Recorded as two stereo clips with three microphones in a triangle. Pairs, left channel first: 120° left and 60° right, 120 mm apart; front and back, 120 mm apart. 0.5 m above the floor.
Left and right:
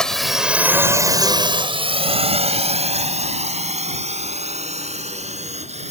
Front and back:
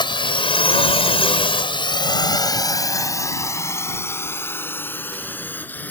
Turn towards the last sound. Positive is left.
turn(degrees=-75)